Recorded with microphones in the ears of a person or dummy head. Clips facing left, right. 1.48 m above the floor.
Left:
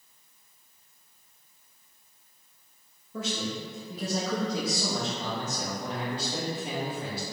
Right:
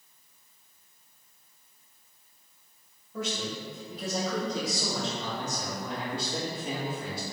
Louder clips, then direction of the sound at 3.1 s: Left 1 dB; 80° left.